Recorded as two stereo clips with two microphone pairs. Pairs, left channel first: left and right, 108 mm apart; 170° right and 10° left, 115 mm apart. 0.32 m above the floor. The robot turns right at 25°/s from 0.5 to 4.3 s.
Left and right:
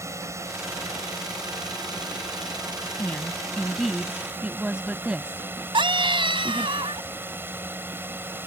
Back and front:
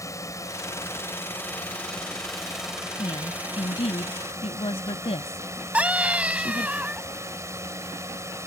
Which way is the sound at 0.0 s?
130° right.